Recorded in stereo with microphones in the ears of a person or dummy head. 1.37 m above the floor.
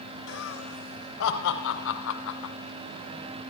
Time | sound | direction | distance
0.3 | laughter | 75° left (ahead or behind) | 4.5 m